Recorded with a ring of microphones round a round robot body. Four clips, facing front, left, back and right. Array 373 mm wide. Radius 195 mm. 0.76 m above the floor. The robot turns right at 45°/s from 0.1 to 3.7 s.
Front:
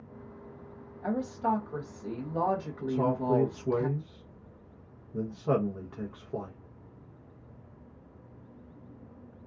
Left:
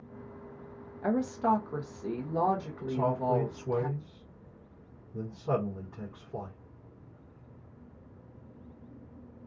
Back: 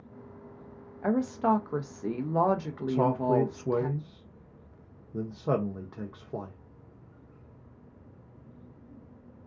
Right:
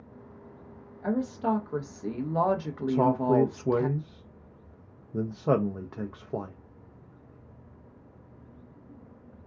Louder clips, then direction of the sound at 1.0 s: Even, back 4 dB; 150° left.